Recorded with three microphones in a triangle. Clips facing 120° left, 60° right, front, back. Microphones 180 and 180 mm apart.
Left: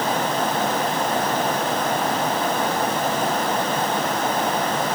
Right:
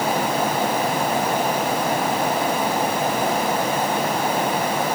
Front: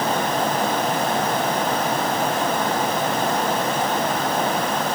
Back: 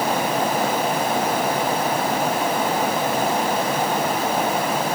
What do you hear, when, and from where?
Only background noise.